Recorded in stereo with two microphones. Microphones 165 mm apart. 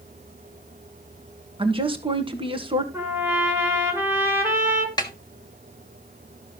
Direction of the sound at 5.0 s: 25° left (ahead or behind).